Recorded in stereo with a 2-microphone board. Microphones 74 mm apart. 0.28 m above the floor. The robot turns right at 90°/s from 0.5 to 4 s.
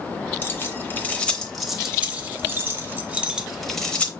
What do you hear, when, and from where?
0.4 s keys jangling: 30° left (ahead or behind), 0.8 m; by 4.1 s 15° left (ahead or behind), 0.8 m